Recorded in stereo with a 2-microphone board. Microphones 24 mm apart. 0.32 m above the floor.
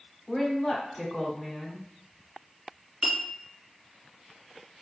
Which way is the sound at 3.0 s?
35° right (ahead or behind).